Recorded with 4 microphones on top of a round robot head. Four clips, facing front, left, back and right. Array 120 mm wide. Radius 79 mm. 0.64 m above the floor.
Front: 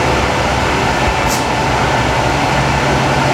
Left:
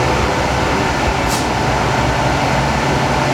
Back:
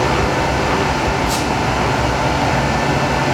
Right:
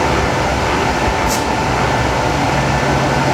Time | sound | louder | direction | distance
1.3 | a squeak | right 1 dB, front 3 dB | 50° right | 2.5 m